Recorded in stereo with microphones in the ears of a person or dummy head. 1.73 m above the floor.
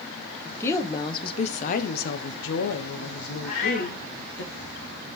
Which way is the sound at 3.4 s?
50° left (ahead or behind).